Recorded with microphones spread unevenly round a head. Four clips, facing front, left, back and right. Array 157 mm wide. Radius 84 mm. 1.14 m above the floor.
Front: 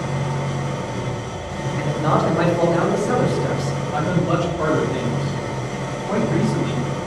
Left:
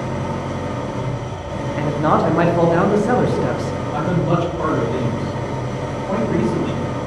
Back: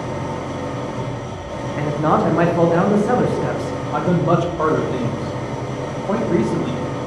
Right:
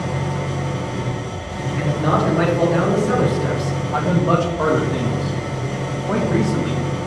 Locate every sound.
0.0 s an engine running: 140° left, 1.2 m
1.8 s a man speaking: 150° left, 0.7 m
3.9 s a man speaking: 155° right, 0.8 m